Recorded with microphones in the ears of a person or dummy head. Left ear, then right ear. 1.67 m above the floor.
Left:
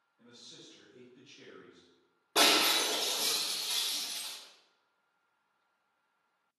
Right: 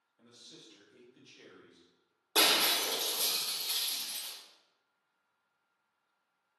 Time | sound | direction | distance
0.2 | a man speaking | 25° right (ahead or behind) | 0.9 m
2.4 | breaking glass | 45° right (ahead or behind) | 2 m